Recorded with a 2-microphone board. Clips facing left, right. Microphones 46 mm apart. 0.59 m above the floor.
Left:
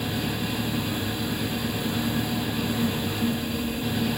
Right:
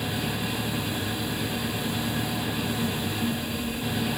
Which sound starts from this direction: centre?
An engine running, at 0.0 s.